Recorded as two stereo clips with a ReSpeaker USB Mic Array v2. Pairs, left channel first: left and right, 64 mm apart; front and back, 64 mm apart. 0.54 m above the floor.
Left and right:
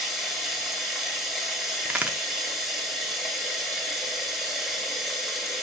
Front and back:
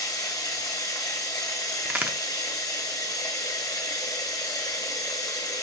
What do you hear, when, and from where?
0.0 s running water: straight ahead, 1.2 m
1.9 s a crack: 135° right, 0.6 m